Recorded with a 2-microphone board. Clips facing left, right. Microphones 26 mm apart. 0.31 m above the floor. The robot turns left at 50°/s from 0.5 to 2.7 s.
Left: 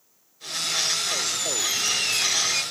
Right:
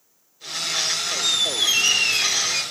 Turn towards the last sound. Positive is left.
turn(degrees=180)